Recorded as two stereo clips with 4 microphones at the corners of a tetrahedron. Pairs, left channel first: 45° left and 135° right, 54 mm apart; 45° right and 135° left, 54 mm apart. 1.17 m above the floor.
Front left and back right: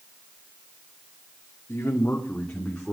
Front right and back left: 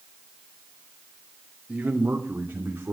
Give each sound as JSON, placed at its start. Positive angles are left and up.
{"t": 1.7, "sound": "a man speaking", "azimuth_deg": 85, "distance_m": 3.0}